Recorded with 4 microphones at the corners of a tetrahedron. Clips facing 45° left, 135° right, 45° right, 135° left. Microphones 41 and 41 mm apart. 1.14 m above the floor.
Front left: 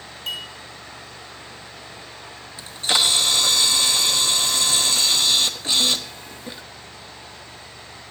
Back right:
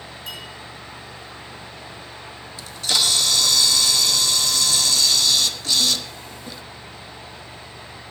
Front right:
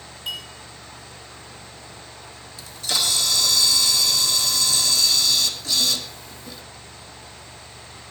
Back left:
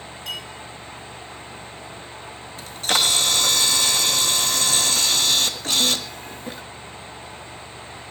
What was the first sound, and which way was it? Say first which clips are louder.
A clink: front left 6 dB, front right 1 dB; 30° left.